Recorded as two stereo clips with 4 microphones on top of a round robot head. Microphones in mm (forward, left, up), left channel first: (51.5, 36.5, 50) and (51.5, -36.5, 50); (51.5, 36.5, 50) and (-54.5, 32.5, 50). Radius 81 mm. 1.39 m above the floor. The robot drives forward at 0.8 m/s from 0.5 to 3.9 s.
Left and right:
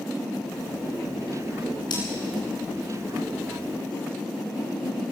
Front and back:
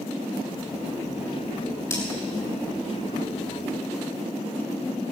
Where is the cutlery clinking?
65° left, 9.5 m.